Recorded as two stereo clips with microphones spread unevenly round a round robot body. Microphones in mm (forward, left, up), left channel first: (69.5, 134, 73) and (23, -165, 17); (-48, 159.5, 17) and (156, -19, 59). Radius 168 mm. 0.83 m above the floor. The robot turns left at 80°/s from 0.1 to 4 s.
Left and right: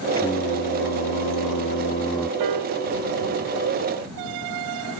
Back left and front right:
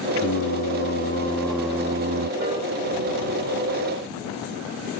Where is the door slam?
No door slam in this recording.